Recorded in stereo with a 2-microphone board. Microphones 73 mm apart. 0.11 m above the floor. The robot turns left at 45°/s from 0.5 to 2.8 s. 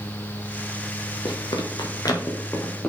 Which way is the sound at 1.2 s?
80° left.